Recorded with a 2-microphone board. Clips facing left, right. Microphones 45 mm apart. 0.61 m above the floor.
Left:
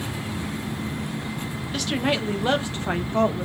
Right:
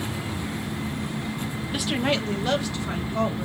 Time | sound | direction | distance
1.7 | a woman speaking | 15° right (ahead or behind) | 0.8 m